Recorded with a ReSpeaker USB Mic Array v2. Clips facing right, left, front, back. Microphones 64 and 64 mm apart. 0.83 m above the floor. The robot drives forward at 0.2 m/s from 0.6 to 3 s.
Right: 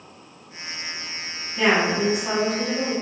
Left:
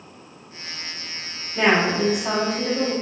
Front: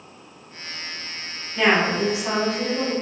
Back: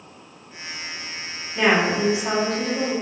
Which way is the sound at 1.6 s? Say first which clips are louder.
Left 1 dB, even; 110° left.